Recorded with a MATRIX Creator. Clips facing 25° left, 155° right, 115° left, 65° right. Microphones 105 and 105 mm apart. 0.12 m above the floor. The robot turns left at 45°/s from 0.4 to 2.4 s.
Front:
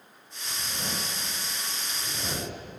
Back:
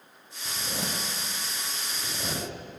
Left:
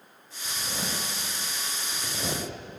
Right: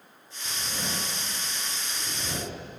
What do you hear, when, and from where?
0.5 s a zipper: 160° right, 5.5 m; by 2.5 s 115° left, 5.5 m